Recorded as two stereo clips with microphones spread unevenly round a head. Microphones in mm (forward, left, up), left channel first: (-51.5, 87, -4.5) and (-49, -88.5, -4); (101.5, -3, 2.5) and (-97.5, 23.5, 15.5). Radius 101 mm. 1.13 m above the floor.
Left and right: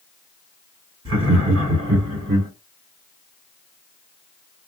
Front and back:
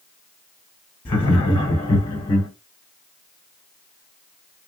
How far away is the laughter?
About 1.4 m.